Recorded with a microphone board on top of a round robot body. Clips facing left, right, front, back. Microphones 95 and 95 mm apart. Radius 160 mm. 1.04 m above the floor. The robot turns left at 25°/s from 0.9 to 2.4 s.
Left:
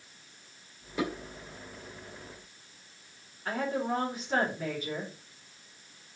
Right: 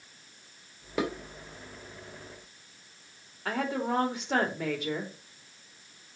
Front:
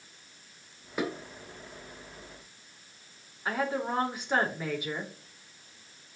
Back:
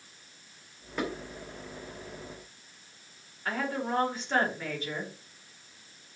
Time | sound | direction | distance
1.0 | dishes clattering | 80° right | 3 m
3.5 | a woman speaking | 75° right | 3.5 m